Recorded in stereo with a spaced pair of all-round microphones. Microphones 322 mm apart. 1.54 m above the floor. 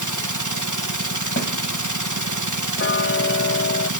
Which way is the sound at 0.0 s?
75° right (ahead or behind).